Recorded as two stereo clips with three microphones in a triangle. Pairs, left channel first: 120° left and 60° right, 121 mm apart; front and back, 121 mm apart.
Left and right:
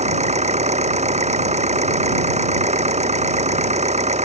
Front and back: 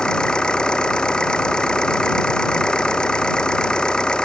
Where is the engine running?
85° right.